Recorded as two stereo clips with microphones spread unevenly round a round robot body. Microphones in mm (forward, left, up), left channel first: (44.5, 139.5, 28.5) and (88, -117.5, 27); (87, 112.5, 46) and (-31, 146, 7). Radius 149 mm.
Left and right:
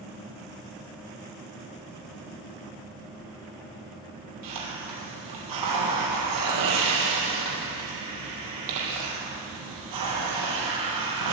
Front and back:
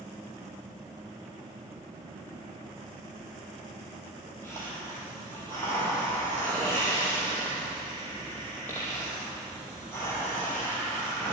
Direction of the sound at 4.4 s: 95° right.